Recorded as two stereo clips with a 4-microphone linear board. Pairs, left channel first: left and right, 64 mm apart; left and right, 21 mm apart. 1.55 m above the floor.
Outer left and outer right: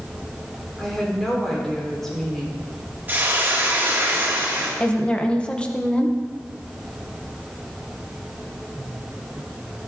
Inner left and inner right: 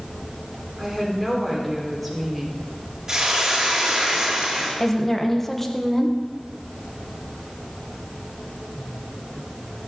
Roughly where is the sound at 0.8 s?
Centre.